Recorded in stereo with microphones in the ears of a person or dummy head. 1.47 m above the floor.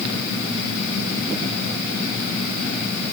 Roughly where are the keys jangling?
No keys jangling in this recording.